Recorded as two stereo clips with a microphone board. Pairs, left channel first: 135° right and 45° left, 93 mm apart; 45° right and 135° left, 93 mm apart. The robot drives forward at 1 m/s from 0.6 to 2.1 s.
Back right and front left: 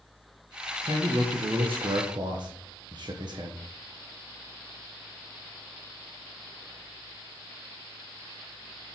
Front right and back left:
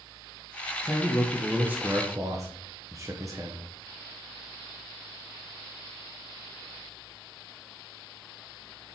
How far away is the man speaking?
About 1.9 m.